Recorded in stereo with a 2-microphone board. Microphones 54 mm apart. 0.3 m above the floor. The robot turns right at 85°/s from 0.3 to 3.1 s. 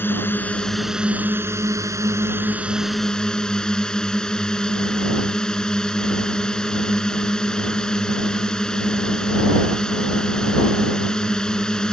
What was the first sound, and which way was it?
A drone, 140° left.